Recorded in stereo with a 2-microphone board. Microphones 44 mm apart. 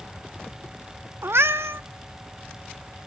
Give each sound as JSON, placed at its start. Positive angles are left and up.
{"t": 1.2, "sound": "a cat meowing", "side_deg": -75, "distance_m": 0.6}